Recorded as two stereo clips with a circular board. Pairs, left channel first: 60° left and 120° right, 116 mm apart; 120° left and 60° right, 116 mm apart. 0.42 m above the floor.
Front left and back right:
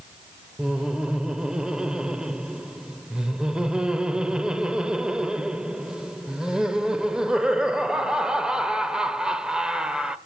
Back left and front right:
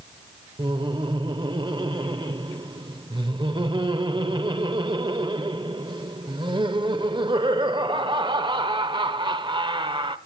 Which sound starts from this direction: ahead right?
Laughter, at 0.6 s.